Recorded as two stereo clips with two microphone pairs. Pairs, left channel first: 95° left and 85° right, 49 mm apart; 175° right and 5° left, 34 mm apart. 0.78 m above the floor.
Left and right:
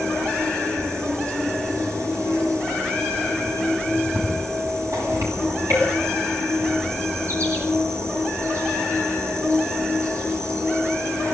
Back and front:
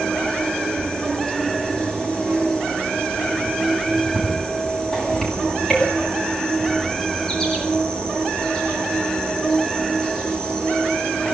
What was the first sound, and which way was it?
An insect, 105° right.